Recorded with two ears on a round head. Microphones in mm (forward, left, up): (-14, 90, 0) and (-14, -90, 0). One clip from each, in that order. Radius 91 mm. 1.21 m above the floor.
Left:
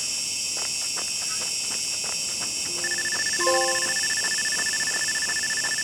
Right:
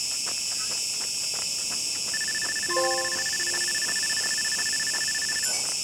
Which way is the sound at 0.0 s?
40° right (ahead or behind).